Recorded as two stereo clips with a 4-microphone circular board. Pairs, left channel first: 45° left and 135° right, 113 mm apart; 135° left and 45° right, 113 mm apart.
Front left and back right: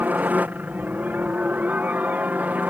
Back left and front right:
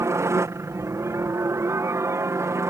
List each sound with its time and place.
0.0 s a helicopter: 75° right